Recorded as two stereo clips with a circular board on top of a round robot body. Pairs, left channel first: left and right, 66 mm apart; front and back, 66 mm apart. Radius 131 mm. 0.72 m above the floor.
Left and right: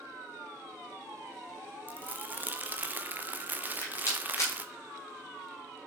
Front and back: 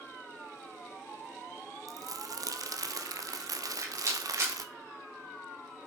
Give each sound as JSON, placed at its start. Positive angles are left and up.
{"t": 1.9, "sound": "crumpling", "azimuth_deg": -155, "distance_m": 0.6}
{"t": 3.6, "sound": "a rattle", "azimuth_deg": 135, "distance_m": 2.0}